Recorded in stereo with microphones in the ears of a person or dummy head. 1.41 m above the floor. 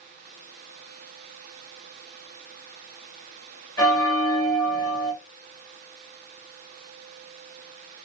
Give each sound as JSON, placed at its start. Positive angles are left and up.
{"t": 3.8, "sound": "a bell", "side_deg": 20, "distance_m": 2.0}